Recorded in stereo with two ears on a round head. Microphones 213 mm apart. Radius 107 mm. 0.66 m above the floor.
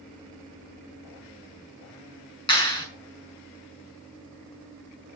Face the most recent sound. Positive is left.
turn(degrees=20)  # may be behind; listen again after turning